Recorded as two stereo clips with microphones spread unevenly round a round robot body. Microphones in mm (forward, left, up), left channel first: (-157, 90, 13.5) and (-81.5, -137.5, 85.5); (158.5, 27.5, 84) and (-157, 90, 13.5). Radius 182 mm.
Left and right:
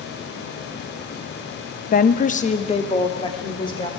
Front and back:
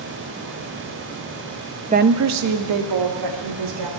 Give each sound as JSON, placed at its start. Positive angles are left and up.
{"t": 1.9, "sound": "a woman speaking", "azimuth_deg": 120, "distance_m": 0.6}